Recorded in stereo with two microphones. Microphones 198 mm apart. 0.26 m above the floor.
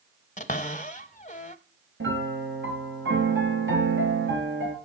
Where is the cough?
No cough in this recording.